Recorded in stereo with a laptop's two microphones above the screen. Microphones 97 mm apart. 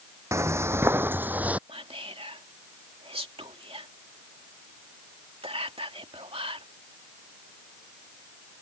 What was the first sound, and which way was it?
Footsteps, 30° right (ahead or behind).